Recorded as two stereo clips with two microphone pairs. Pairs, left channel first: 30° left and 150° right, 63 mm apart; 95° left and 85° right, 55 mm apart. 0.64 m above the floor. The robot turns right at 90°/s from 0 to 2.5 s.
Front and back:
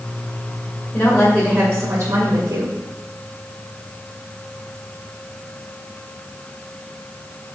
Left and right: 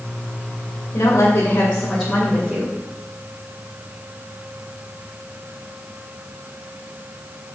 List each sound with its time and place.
0.9 s a woman speaking: 70° left, 2.5 m; by 2.8 s 150° right, 2.5 m